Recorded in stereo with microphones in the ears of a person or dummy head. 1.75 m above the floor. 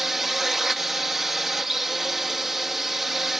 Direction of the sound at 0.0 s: Centre (ahead or behind).